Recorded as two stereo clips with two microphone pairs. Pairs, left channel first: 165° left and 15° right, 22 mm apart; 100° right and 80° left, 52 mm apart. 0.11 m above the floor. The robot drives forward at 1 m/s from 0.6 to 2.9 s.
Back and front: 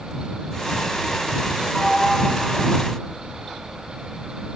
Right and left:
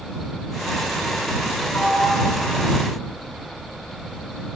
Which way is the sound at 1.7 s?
95° right.